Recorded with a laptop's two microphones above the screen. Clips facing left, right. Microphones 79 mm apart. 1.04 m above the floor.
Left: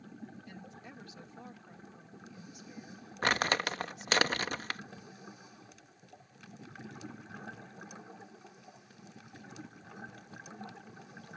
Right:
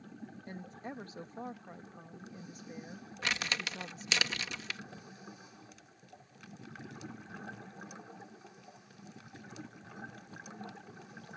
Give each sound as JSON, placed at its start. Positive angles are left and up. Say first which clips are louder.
{"t": 0.5, "sound": "a woman speaking", "louder": "right 5 dB", "side_deg": -40}
{"t": 3.2, "sound": "crumpling", "louder": "left 7 dB", "side_deg": 45}